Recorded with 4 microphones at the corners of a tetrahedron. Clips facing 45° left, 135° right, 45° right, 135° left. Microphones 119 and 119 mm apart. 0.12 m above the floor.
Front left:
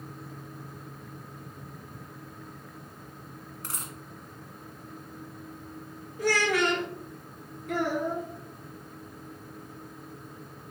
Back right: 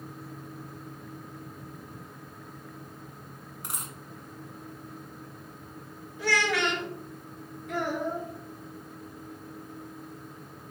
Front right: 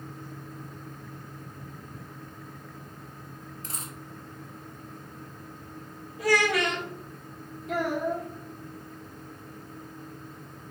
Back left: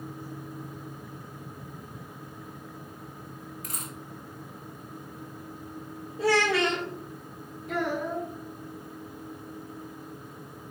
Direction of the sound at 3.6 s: 70° right.